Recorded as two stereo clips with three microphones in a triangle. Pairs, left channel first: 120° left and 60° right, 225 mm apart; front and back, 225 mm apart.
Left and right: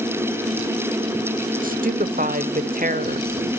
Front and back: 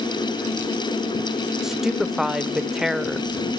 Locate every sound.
1.6 s a woman speaking: 90° right, 1.2 m